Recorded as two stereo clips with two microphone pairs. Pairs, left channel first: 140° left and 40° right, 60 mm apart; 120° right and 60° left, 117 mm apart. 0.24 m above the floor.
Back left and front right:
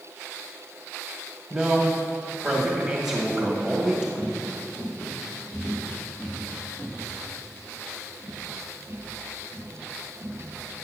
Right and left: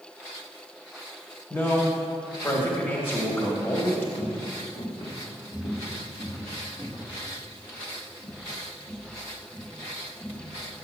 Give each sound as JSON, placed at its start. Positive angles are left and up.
{"t": 1.5, "sound": "a man speaking", "azimuth_deg": -105, "distance_m": 1.1}
{"t": 4.2, "sound": "footsteps", "azimuth_deg": -140, "distance_m": 2.5}